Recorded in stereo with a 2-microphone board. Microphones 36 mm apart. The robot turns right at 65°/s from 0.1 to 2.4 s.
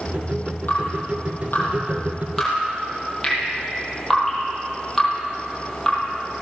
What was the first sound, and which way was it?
Dripping, 60° left (ahead or behind).